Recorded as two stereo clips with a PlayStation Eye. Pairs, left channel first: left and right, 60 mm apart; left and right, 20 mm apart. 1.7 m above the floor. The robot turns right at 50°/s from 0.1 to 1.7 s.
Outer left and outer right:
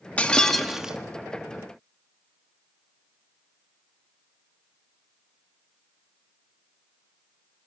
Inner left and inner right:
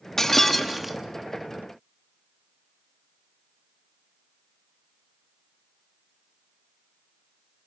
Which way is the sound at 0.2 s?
160° left.